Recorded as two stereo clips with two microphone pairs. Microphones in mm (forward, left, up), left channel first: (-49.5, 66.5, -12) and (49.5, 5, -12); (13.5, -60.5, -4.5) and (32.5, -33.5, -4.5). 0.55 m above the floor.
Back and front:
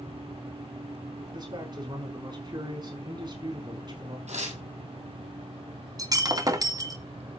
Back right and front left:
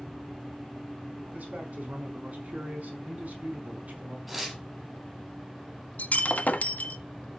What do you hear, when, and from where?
1.3 s a man speaking: 20° left, 5 m
4.3 s tearing paper: 25° right, 7 m
6.0 s breaking glass: 90° right, 1.5 m